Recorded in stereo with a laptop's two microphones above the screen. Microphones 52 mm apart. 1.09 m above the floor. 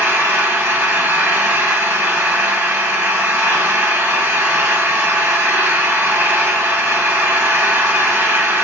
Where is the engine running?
60° right (ahead or behind), 2 m.